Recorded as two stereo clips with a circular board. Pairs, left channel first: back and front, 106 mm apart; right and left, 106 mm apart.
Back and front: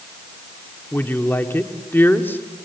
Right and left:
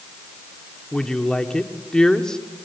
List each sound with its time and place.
0.9 s a woman speaking: 160° right, 1.3 m